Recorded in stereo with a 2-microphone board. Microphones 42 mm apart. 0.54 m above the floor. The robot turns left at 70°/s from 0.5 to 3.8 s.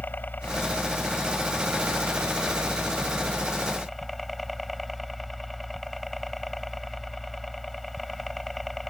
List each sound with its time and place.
0.0 s a helicopter: 45° left; by 8.9 s 175° left